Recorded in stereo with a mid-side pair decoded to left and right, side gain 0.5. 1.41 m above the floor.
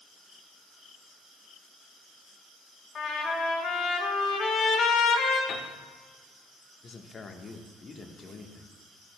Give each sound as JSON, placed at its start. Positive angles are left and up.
{"t": 3.0, "sound": "a trumpet", "azimuth_deg": 60, "distance_m": 2.0}
{"t": 5.5, "sound": "a piano", "azimuth_deg": 65, "distance_m": 1.3}
{"t": 6.8, "sound": "a man speaking", "azimuth_deg": 35, "distance_m": 1.3}